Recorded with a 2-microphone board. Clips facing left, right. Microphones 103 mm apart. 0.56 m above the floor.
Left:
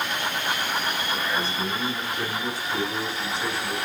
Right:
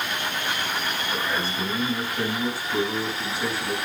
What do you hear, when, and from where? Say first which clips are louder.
1.1 s a man speaking: right 2 dB; 10° right (ahead or behind), 3.5 m